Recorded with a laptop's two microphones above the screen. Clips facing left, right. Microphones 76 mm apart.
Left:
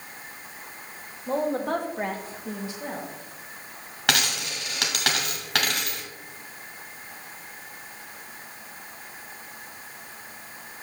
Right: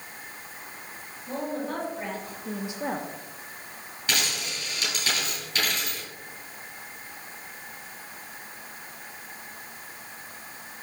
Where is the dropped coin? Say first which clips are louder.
Left 4 dB; 70° left (ahead or behind), 1.9 m.